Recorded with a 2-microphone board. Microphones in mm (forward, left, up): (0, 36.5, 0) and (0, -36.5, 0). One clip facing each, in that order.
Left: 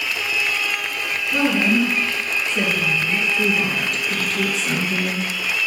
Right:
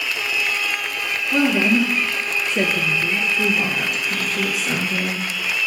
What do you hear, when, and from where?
1.3 s a woman speaking: 55° right (ahead or behind), 2.5 m; by 3.3 s 40° right (ahead or behind), 2.5 m
3.4 s a woman speaking: 5° right (ahead or behind), 1.8 m